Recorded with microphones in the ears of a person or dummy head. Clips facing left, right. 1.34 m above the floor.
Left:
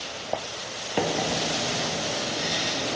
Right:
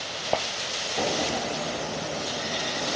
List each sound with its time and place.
1.0 s a microwave: 75° left (ahead or behind), 0.5 m